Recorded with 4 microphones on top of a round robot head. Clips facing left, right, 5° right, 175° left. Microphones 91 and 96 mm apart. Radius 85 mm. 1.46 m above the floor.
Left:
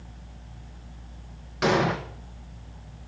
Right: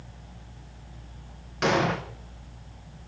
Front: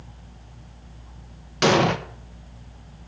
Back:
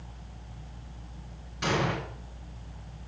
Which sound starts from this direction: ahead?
An explosion, at 1.6 s.